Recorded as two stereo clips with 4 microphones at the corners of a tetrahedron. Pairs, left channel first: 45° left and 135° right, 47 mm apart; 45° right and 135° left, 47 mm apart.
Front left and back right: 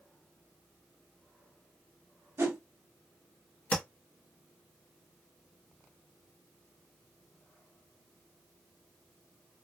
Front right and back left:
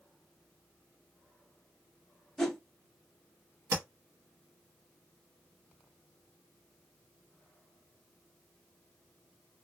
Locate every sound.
2.4 s a whoosh: 130° right, 1.1 m
3.7 s tapping: 110° left, 1.4 m